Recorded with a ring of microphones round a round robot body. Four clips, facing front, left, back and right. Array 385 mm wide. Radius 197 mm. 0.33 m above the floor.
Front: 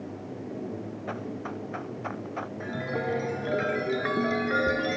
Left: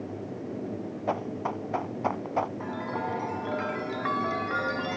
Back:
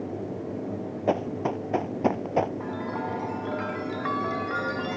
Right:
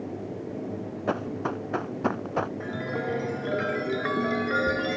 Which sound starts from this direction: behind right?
Running footsteps, at 1.1 s.